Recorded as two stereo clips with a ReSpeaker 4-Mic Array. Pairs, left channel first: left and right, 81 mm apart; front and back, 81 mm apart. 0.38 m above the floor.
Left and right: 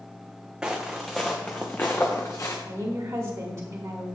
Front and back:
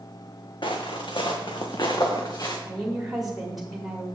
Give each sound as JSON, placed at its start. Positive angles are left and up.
{"t": 0.6, "sound": "footsteps", "azimuth_deg": -10, "distance_m": 1.3}
{"t": 2.7, "sound": "a woman speaking", "azimuth_deg": -100, "distance_m": 1.1}